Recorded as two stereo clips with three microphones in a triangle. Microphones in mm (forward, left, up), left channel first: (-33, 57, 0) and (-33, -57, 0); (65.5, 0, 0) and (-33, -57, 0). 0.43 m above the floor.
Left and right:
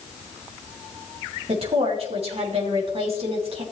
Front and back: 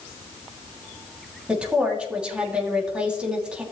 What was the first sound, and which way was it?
A woman speaking, 70° right.